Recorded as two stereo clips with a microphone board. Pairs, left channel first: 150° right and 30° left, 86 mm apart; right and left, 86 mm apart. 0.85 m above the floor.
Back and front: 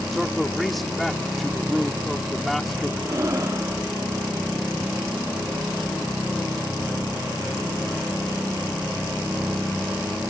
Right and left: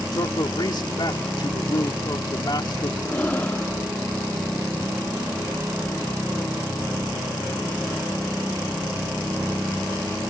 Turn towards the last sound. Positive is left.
turn(degrees=-20)